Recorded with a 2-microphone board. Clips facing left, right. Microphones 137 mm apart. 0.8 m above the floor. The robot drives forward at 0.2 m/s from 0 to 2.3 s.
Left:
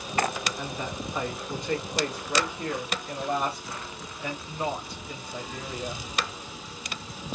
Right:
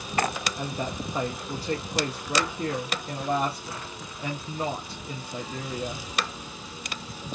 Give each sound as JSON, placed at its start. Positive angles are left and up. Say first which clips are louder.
{"t": 0.6, "sound": "a woman speaking", "louder": "right 2 dB", "side_deg": -40, "distance_m": 0.6}